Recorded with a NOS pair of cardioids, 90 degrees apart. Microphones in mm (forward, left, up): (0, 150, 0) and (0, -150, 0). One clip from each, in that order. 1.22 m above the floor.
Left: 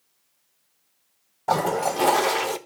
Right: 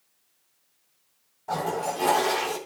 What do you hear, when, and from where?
1.5 s a toilet flushing: 60° left, 1.1 m